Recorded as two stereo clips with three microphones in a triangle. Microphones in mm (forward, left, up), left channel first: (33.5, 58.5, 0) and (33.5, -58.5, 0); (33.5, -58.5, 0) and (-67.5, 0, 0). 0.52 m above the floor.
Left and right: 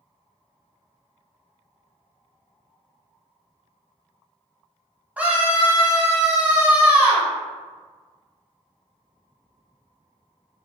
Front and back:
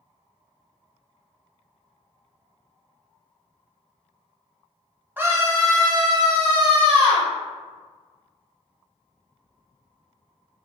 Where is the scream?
150° right, 0.8 m; by 7.3 s 170° right, 1.8 m.